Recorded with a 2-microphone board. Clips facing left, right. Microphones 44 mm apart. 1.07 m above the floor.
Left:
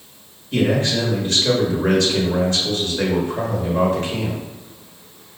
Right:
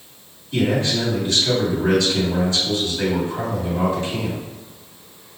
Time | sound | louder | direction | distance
0.5 | a man speaking | left 1 dB | 55° left (ahead or behind) | 1.4 m